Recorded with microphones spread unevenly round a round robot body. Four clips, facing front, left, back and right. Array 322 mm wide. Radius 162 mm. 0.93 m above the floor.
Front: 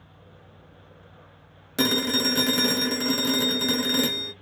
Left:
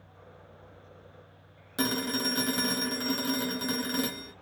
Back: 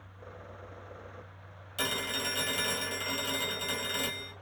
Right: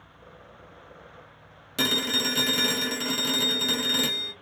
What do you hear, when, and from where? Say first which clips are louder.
1.8 s a phone ringing: right 1 dB, front 11 dB; 10° right, 0.6 m